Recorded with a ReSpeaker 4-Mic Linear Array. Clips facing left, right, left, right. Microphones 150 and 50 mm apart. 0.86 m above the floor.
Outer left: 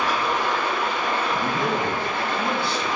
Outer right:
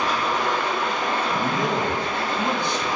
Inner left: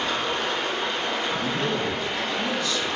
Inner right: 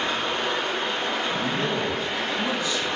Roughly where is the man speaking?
Centre.